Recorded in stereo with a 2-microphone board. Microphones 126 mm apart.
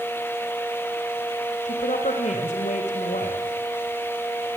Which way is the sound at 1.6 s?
70° left (ahead or behind).